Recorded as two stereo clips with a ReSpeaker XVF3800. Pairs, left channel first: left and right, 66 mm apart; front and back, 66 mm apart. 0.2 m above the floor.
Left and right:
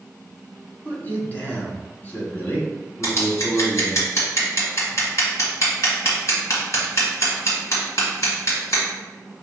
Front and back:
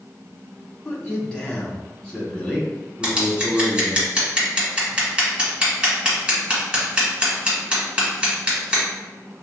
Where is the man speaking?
60° left, 1.2 m.